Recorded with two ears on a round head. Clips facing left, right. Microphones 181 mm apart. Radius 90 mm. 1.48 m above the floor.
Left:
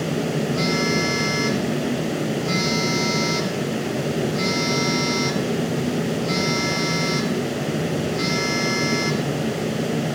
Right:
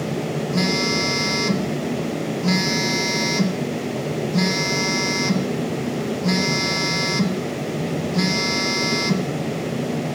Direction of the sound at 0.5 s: 65° right (ahead or behind).